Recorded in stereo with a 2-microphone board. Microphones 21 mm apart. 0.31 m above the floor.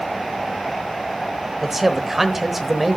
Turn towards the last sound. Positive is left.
turn(degrees=-15)  # may be behind; listen again after turning